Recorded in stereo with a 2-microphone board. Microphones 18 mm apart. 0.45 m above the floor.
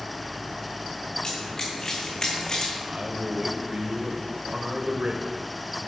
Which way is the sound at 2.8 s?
60° right (ahead or behind).